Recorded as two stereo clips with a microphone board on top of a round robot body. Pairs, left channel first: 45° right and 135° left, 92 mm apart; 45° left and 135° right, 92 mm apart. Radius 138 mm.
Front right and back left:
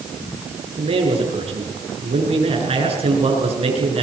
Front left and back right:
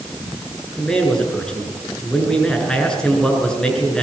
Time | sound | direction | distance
0.8 | a man speaking | 125° left | 6.5 m